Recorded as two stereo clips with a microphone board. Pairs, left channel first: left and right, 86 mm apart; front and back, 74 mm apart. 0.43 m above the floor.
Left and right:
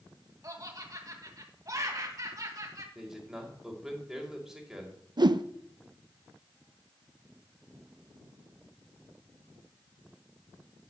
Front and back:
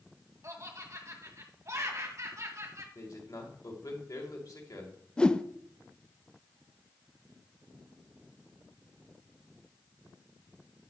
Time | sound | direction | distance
0.4 | laughter | 135° right | 2.5 m
3.0 | a man speaking | 10° right | 2 m
5.2 | a whoosh | 75° right | 0.5 m